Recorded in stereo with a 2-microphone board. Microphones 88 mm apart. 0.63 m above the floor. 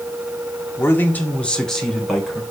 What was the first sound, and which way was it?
A man speaking, 30° left (ahead or behind).